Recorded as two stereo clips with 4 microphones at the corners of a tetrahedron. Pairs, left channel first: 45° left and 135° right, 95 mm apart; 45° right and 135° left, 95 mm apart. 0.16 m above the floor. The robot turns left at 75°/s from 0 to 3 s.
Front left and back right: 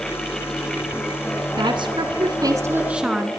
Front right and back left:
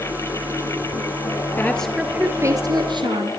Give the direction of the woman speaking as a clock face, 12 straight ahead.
4 o'clock.